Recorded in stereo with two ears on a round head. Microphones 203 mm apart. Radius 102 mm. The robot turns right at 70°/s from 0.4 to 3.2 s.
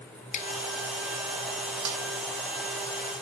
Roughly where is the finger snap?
Left.